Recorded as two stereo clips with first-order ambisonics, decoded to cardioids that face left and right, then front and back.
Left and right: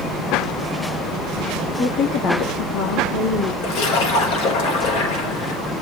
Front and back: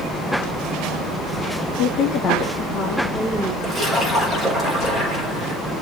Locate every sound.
1.8 s a woman speaking: 30° left, 1.5 m; by 3.5 s 95° left, 2.5 m
3.6 s a splash: 90° left, 5 m